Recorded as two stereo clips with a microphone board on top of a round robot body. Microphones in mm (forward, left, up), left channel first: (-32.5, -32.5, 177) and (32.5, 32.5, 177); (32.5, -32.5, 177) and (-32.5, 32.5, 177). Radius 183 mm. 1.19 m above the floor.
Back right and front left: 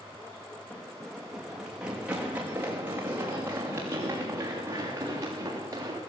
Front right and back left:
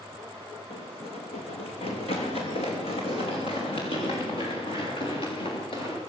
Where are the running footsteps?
60° right, 3.5 m; by 6.0 s 15° right, 10.5 m.